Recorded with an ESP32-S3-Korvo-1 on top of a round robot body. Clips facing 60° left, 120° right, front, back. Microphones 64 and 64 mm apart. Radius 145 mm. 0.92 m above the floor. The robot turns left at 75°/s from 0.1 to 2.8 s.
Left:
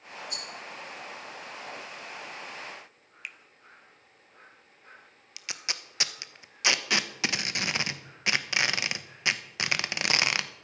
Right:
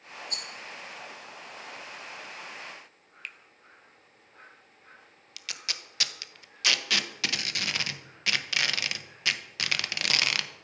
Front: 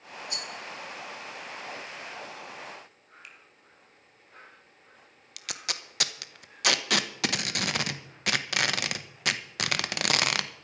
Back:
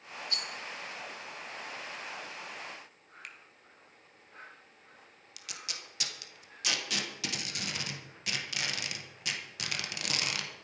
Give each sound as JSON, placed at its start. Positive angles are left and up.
{"t": 0.3, "sound": "a rattle", "azimuth_deg": -70, "distance_m": 1.3}
{"t": 3.2, "sound": "a finger snap", "azimuth_deg": 140, "distance_m": 0.8}
{"t": 5.4, "sound": "tape being pulled", "azimuth_deg": -5, "distance_m": 1.0}